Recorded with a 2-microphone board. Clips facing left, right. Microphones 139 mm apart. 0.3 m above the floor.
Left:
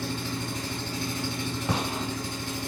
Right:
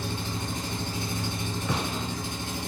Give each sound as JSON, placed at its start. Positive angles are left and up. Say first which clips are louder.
{"t": 0.0, "sound": "an engine running", "louder": "left 1 dB", "side_deg": -20, "distance_m": 1.2}
{"t": 1.7, "sound": "a gunshot", "louder": "left 1 dB", "side_deg": 30, "distance_m": 1.4}